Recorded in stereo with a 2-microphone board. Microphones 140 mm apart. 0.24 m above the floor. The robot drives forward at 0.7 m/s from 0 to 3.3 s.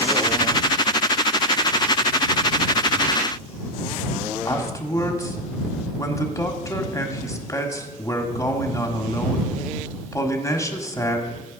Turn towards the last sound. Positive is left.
turn(degrees=20)  # may be behind; listen again after turning